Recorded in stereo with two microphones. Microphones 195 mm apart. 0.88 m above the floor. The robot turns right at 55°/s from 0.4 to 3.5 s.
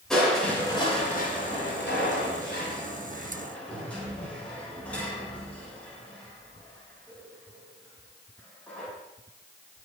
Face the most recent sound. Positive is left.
turn(degrees=5)  # may be behind; listen again after turning